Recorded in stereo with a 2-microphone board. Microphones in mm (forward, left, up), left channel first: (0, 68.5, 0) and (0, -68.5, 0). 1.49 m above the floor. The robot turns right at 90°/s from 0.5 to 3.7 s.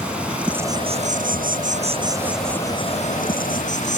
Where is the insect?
170° right; by 4.0 s 115° left.